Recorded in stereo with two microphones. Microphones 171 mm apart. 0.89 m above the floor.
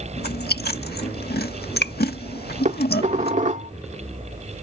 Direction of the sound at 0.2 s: 70° left (ahead or behind).